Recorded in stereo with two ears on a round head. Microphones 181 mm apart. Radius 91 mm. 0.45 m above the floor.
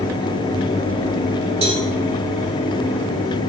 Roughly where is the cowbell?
Right.